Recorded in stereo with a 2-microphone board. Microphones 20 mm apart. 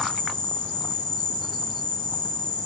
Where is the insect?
45° left (ahead or behind), 1.3 m.